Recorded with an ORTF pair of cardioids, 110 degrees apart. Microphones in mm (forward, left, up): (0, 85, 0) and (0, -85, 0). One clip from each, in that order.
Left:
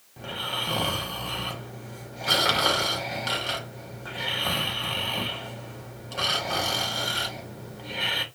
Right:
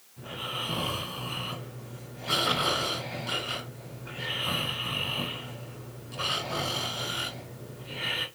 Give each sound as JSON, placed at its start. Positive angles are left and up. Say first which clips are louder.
{"t": 0.2, "sound": "snoring", "louder": "left 4 dB", "azimuth_deg": 65, "distance_m": 1.8}